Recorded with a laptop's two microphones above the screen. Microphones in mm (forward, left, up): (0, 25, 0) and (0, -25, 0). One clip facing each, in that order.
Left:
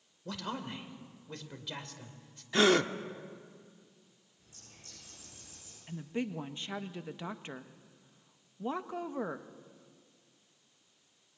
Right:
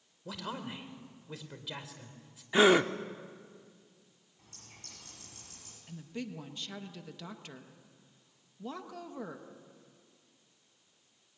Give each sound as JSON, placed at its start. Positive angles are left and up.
{"t": 0.2, "sound": "a man speaking", "side_deg": 0, "distance_m": 3.0}
{"t": 2.5, "sound": "a gasp", "side_deg": -10, "distance_m": 0.9}
{"t": 4.4, "sound": "a bird", "side_deg": -60, "distance_m": 7.0}
{"t": 5.9, "sound": "a woman speaking", "side_deg": 25, "distance_m": 0.8}